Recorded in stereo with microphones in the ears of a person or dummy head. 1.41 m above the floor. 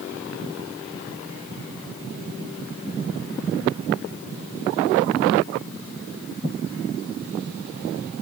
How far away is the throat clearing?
No throat clearing in this recording.